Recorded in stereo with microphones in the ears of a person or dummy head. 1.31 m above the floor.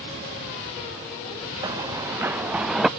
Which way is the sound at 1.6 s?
20° right (ahead or behind).